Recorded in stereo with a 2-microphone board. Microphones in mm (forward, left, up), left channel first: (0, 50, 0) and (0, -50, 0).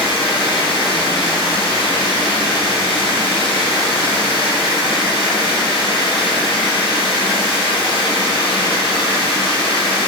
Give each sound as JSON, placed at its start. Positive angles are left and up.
{"t": 0.0, "sound": "running water", "side_deg": 60, "distance_m": 1.2}